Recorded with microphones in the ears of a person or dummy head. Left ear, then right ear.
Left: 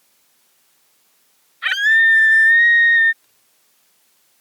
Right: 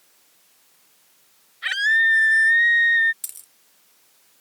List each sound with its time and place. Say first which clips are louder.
1.6 s a scream: left 5 dB; 35° left (ahead or behind)
3.2 s a dropped coin: right 19 dB; 55° right (ahead or behind)